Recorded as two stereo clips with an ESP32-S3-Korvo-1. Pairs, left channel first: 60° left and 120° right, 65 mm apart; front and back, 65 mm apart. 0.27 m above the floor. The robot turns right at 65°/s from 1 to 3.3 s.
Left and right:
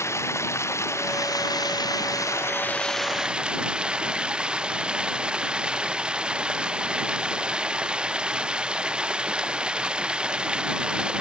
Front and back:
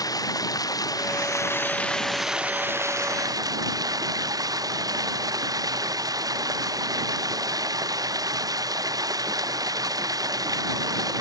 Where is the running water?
15° left; by 11.2 s 165° left.